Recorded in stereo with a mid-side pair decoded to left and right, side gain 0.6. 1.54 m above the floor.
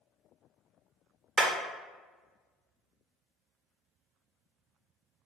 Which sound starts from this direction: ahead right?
Hammering, at 1.4 s.